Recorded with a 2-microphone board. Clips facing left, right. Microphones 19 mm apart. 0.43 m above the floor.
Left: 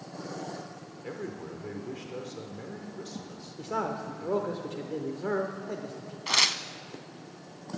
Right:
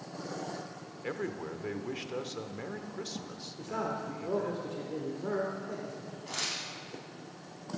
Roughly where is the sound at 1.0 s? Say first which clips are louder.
Right 2 dB; right.